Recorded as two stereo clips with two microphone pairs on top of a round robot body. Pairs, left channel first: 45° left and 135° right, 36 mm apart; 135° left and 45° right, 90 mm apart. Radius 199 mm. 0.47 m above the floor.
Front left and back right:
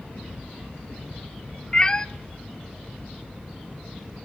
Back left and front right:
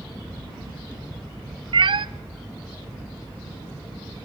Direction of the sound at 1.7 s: 20° right.